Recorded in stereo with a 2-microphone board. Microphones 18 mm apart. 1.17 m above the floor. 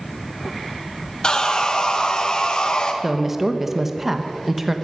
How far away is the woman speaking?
About 1.0 m.